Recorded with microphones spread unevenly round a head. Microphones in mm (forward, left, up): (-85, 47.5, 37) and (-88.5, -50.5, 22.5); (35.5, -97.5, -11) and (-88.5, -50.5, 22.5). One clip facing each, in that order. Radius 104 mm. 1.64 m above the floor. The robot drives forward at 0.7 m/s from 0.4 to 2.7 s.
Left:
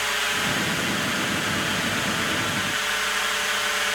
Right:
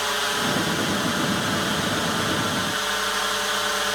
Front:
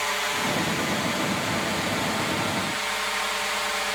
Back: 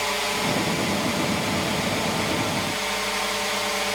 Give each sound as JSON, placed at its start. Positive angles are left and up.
{"t": 0.0, "sound": "a drone", "azimuth_deg": -145}